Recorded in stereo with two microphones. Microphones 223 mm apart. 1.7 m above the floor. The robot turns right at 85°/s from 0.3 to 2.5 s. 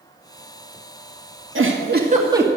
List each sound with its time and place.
1.6 s a giggle: 90° right, 2.0 m; by 2.5 s 10° right, 2.0 m